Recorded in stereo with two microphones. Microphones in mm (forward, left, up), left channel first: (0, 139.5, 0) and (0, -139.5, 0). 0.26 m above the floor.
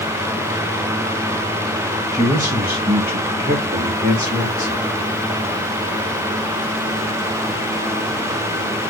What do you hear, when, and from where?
2.1 s a man speaking: 10° right (ahead or behind), 6 m; by 4.8 s 35° right (ahead or behind), 5.5 m